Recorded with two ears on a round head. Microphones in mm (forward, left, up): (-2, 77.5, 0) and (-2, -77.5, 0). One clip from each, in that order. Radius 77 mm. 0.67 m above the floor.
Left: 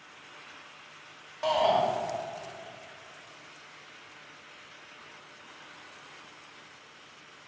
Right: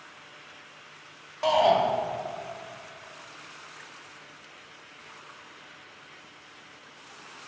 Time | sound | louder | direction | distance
1.4 | a shout | right 4 dB | 5° right (ahead or behind) | 1.3 m